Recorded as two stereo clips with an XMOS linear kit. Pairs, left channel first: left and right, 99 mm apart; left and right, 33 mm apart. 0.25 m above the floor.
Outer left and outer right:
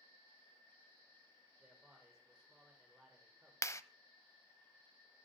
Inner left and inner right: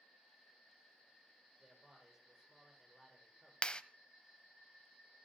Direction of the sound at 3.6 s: 30° left (ahead or behind).